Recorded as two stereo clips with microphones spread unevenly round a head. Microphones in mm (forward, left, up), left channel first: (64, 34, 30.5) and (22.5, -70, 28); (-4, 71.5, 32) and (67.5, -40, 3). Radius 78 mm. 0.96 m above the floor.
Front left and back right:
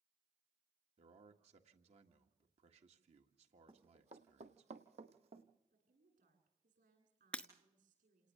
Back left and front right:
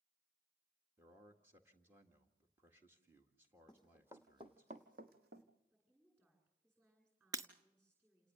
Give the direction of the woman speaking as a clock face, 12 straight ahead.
5 o'clock.